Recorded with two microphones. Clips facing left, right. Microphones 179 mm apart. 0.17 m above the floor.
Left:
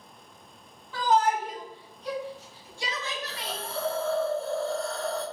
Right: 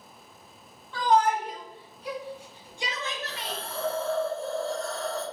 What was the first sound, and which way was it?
A shout, 10° left (ahead or behind).